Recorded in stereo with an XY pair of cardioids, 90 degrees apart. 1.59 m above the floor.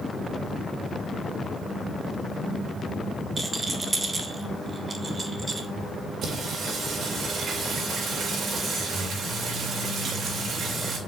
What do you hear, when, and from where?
3.4 s a rattle: 30° right, 1.4 m
6.2 s singing: 60° right, 3 m